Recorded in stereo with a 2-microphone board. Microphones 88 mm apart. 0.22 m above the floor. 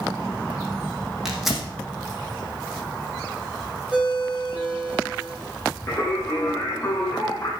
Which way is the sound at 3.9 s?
5° right (ahead or behind).